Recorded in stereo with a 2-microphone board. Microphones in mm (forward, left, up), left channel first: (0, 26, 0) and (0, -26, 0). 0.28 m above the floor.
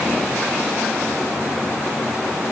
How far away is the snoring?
No snoring in this recording.